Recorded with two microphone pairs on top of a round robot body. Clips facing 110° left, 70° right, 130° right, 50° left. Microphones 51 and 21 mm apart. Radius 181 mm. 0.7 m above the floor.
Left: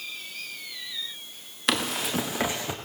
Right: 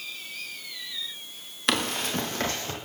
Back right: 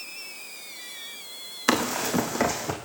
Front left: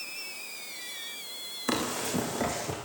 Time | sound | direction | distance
1.7 | running footsteps | 160° right | 4 m